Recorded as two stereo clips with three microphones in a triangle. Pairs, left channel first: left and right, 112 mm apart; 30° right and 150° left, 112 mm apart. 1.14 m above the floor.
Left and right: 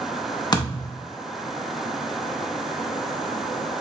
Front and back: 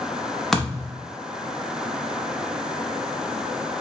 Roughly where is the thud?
Ahead left.